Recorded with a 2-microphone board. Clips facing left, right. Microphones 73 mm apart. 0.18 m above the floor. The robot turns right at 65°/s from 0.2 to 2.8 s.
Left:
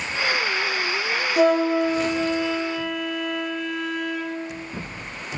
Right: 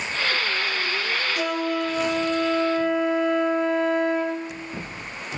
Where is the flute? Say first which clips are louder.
Left 10 dB; 120° left, 0.7 m; by 4.5 s 145° right, 0.7 m.